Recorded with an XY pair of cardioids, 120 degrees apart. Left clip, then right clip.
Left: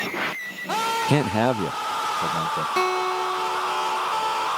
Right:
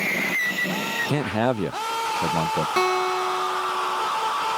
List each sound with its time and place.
1.1 s a man speaking: 30° left; by 2.7 s 40° right
2.8 s a guitar: 10° right